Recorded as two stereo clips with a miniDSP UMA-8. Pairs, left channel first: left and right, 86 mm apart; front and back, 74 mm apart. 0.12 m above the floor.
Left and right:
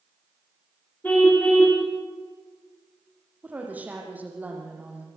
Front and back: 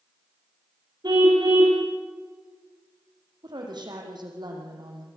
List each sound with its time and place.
1.0 s a car horn: 160° left, 5.5 m
3.4 s a woman speaking: 160° right, 6 m